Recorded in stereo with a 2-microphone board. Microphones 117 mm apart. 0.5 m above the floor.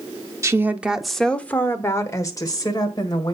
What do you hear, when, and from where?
0.4 s a woman speaking: 25° right (ahead or behind), 0.7 m; by 3.3 s 40° left (ahead or behind), 1.9 m